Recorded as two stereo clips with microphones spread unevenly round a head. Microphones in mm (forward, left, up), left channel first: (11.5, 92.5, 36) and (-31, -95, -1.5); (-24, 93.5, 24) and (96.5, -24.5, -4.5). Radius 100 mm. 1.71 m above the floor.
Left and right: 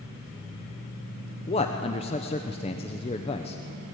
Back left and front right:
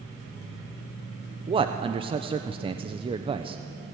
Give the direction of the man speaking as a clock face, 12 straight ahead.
11 o'clock.